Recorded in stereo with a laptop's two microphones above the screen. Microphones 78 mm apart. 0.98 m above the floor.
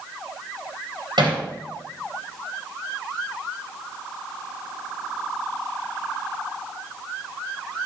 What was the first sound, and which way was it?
Hammering, 90° right.